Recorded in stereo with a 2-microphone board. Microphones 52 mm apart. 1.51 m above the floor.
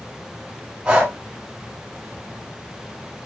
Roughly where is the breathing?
Centre.